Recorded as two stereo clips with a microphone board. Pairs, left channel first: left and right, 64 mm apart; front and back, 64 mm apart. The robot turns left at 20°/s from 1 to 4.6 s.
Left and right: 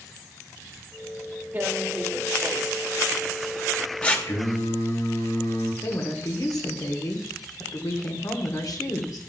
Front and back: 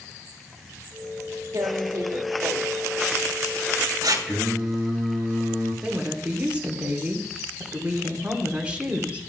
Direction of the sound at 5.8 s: 110° left.